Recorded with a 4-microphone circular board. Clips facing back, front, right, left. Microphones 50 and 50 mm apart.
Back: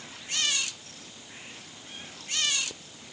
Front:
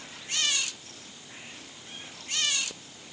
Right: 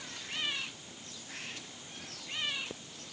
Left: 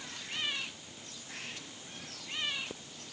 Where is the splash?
No splash in this recording.